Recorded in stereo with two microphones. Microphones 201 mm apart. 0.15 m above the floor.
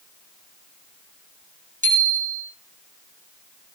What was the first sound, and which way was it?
A bicycle bell, 40° right (ahead or behind).